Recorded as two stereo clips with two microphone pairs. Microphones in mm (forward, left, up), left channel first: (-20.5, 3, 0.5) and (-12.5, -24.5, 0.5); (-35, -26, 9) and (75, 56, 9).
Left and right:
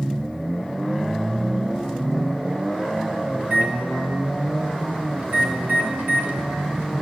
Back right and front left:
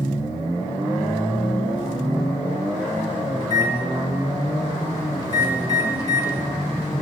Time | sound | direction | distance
3.4 | a microwave | 80° right | 1.7 m